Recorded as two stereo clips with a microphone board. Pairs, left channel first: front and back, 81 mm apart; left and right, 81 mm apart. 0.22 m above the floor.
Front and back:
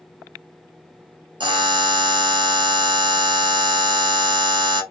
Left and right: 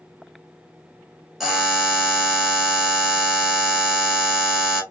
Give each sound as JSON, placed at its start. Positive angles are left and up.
{"t": 1.4, "sound": "a buzzer", "azimuth_deg": -175, "distance_m": 1.3}